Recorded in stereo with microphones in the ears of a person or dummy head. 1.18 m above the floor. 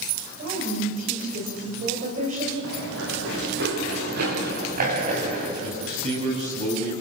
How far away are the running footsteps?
About 8.5 m.